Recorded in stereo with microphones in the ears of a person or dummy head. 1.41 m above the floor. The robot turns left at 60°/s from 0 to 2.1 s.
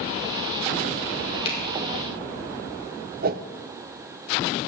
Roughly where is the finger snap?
Left.